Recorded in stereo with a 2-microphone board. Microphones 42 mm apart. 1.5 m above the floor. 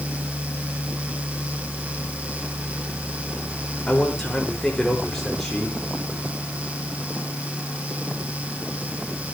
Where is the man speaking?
15° left (ahead or behind), 5.5 m; by 5.8 s 5° left (ahead or behind), 6 m.